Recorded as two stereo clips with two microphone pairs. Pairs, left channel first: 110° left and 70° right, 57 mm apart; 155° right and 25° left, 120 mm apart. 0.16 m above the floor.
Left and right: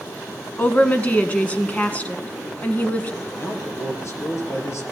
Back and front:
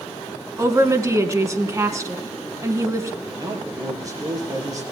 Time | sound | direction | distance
0.6 | a woman speaking | 65° left | 1.3 m
3.2 | a man speaking | 80° left | 3 m